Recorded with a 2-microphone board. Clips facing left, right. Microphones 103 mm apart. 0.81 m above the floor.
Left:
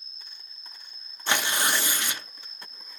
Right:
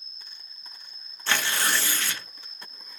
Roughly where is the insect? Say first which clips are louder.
Even; right.